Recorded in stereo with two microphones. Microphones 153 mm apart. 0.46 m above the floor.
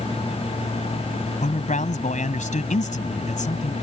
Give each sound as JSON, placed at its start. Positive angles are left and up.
{"t": 1.4, "sound": "a man speaking", "side_deg": 60}